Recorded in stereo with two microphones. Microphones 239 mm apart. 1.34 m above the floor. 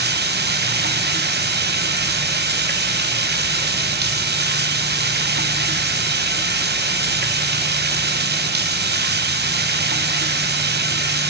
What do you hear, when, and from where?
0.0 s running water: 45° right (ahead or behind), 1.0 m